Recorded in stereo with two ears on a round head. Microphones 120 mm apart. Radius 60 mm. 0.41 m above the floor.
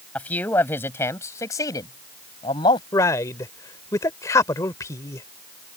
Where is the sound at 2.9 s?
25° left (ahead or behind).